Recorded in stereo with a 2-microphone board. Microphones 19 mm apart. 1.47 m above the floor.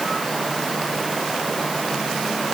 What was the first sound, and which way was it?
Only background noise.